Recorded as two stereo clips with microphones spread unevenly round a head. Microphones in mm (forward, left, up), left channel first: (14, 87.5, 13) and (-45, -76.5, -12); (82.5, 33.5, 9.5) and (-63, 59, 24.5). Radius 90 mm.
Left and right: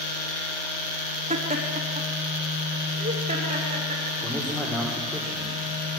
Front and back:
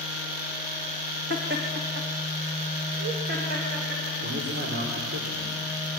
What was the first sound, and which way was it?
Laughter, 160° right.